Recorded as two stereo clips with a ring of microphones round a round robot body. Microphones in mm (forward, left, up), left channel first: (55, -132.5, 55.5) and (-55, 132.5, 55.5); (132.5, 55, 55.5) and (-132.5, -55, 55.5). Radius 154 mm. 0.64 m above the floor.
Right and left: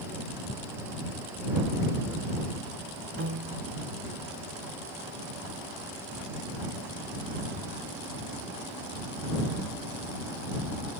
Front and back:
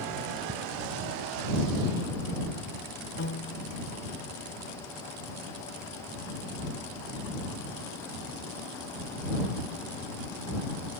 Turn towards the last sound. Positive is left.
turn(degrees=65)